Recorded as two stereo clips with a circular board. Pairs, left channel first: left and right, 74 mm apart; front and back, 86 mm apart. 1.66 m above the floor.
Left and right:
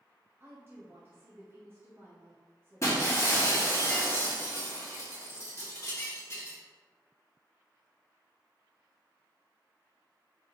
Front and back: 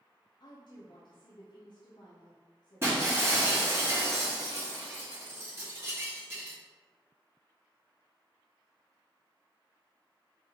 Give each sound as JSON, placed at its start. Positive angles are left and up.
{"t": 0.4, "sound": "a woman speaking", "azimuth_deg": -30, "distance_m": 0.7}
{"t": 2.8, "sound": "breaking glass", "azimuth_deg": 130, "distance_m": 1.4}